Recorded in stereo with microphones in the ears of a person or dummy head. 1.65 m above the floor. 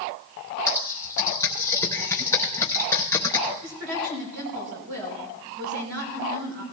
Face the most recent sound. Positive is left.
turn(degrees=-70)  # may be behind; listen again after turning